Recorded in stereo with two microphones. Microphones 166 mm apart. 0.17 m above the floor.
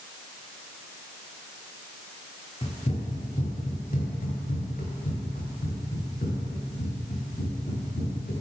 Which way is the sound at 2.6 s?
35° left (ahead or behind).